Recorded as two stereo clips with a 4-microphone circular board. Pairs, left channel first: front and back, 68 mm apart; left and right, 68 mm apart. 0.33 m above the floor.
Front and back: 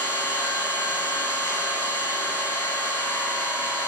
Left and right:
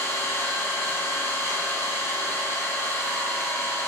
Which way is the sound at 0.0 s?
35° left.